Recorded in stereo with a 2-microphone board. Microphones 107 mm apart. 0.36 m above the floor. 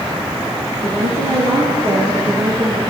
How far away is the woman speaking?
About 5.5 m.